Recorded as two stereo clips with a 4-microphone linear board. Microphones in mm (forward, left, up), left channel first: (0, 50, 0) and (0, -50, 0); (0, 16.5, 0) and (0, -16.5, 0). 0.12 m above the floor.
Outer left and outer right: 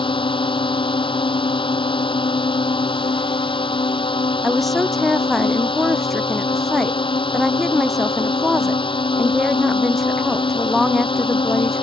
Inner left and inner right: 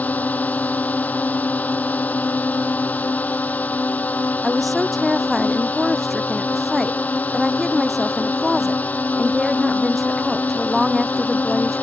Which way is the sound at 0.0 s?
60° left (ahead or behind).